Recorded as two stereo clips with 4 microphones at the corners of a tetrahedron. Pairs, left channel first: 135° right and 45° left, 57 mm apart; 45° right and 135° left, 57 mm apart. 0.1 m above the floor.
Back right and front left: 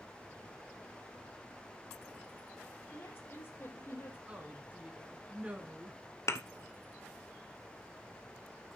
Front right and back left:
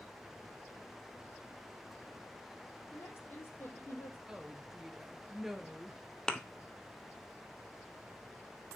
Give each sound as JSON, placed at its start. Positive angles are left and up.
{"t": 2.9, "sound": "a woman speaking", "azimuth_deg": -85, "distance_m": 4.0}
{"t": 4.3, "sound": "a woman speaking", "azimuth_deg": 60, "distance_m": 1.1}
{"t": 6.3, "sound": "a thud", "azimuth_deg": -120, "distance_m": 0.8}